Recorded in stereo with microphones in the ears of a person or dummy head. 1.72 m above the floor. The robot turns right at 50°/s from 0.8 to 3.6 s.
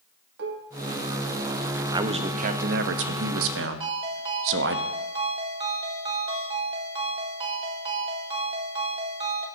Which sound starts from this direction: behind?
A man speaking, at 1.9 s.